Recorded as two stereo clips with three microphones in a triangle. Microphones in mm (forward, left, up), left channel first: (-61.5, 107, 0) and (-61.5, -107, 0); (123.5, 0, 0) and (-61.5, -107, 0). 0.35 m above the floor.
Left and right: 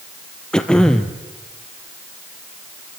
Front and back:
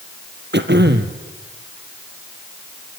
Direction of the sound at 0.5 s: 175° left.